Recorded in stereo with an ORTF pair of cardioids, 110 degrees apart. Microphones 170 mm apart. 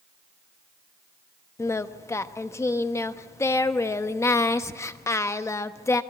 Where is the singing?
15° left, 0.9 m.